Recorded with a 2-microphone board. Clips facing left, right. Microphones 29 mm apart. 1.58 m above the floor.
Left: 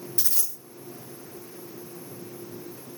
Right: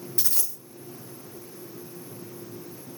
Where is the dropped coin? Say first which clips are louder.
Right 1 dB; 10° right (ahead or behind), 1.5 m.